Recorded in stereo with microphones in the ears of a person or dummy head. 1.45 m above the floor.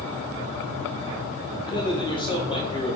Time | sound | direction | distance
1.7 | a man speaking | 35° left (ahead or behind) | 2.5 m